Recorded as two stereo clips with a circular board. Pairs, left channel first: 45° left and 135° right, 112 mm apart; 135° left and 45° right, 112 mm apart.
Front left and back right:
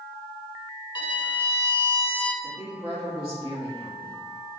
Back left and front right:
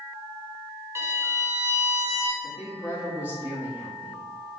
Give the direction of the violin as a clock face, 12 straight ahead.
12 o'clock.